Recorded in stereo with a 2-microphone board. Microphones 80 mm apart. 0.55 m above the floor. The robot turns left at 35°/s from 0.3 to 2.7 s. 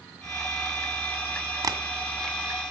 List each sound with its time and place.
1.6 s tapping: 50° right (ahead or behind), 1.7 m